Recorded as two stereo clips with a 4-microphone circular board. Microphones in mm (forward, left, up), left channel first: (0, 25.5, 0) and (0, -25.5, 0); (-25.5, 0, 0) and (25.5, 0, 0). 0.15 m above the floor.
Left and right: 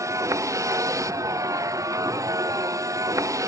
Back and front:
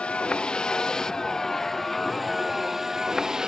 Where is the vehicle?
110° right; by 3.5 s 75° right.